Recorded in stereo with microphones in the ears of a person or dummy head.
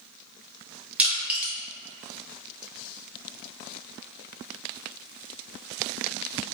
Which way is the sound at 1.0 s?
10° right (ahead or behind).